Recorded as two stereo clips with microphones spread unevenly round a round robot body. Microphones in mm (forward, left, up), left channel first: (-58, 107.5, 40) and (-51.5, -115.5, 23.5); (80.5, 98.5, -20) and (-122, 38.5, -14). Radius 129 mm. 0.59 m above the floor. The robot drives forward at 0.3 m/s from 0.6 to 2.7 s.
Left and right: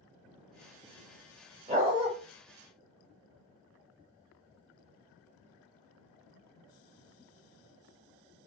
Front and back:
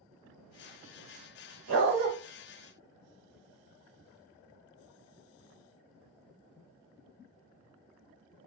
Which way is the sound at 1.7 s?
155° right.